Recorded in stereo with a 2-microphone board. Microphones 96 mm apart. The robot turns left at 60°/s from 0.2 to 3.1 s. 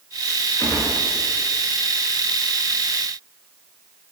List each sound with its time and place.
0.6 s a gunshot: 25° left (ahead or behind), 2.5 m; by 0.9 s 45° left (ahead or behind), 2.5 m